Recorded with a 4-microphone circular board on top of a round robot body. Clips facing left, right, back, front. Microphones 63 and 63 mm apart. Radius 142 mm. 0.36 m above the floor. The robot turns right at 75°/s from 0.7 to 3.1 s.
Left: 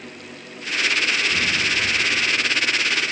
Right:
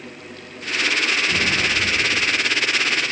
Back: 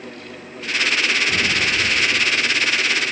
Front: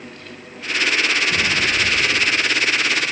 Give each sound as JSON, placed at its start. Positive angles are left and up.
{"t": 1.3, "sound": "an explosion", "azimuth_deg": -150, "distance_m": 9.5}